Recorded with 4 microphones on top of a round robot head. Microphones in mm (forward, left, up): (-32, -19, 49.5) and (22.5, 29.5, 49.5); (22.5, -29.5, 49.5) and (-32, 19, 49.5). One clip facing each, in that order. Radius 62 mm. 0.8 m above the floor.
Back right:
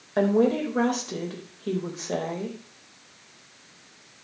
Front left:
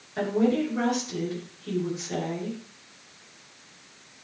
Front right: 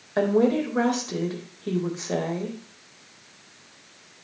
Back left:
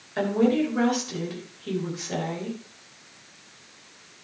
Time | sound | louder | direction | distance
0.2 | a woman speaking | back right 3 dB, front right 1 dB | 100° right | 4 m